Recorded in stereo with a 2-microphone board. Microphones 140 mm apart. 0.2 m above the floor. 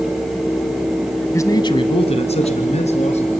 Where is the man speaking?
20° left (ahead or behind), 1.2 m; by 3.3 s 50° left (ahead or behind), 2.5 m.